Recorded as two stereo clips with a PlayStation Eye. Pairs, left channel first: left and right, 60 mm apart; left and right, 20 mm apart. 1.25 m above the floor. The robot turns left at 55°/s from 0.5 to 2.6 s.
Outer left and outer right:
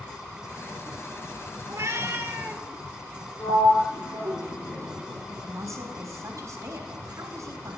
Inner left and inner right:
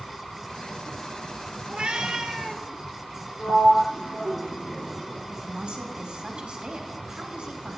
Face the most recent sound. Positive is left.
turn(degrees=-60)  # may be behind; listen again after turning